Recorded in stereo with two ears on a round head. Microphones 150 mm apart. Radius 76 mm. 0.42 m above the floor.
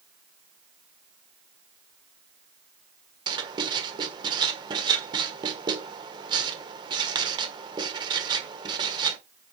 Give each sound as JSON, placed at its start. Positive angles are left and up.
{"t": 3.3, "sound": "writing", "side_deg": -25, "distance_m": 1.4}